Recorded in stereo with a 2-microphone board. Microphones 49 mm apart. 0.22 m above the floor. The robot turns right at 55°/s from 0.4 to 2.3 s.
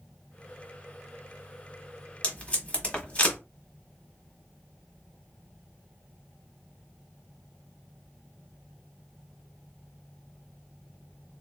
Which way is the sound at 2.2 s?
30° left (ahead or behind).